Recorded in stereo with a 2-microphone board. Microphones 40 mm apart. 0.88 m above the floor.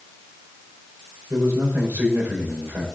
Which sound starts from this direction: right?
A man speaking, at 1.3 s.